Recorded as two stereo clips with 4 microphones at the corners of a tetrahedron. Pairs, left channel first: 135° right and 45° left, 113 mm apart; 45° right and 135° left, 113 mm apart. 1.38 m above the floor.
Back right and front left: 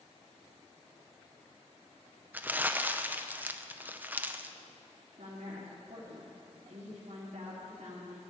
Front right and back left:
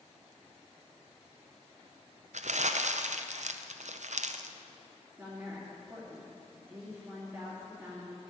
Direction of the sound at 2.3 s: 120° left.